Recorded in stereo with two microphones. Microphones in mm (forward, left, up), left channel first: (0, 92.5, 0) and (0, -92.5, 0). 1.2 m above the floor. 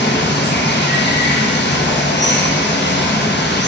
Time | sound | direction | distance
0.0 | running water | 75° left (ahead or behind) | 0.8 m